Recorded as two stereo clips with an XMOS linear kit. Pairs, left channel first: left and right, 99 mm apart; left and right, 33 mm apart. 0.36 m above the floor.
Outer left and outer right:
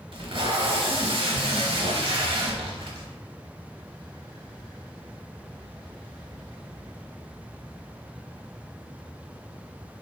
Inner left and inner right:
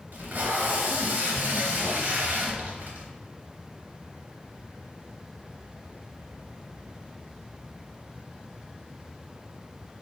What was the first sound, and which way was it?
Tape being pulled, 65° right (ahead or behind).